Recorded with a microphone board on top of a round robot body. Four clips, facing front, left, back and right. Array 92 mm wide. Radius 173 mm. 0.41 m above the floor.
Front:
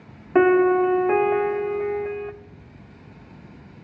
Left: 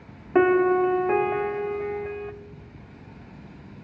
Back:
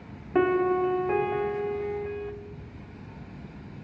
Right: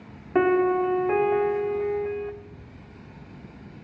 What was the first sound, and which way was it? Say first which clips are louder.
A piano: left 2 dB, front 7 dB; 20° left.